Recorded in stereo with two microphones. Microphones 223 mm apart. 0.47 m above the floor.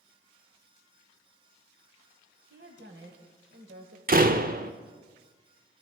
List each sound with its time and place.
2.5 s a woman speaking: 55° right (ahead or behind), 2.5 m; by 4.0 s 65° right (ahead or behind), 1.6 m
4.1 s a door slam: 40° right (ahead or behind), 0.8 m